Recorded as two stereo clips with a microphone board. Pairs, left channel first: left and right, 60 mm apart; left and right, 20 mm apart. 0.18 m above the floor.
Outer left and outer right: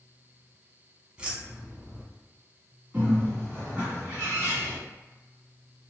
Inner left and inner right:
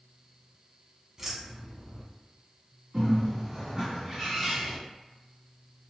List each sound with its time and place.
1.2 s keys jangling: 20° right (ahead or behind), 0.8 m
2.9 s a bird: 20° right (ahead or behind), 1.9 m